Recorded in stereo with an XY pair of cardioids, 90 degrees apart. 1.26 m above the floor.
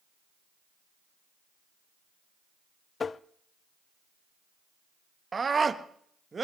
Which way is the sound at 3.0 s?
40° left.